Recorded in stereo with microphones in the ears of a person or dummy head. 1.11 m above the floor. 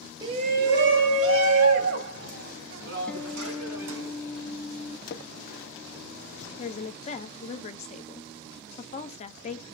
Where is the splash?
50° left (ahead or behind), 0.5 m.